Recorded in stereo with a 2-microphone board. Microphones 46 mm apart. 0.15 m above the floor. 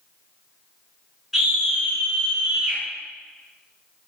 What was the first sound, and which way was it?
A scream, 5° right (ahead or behind).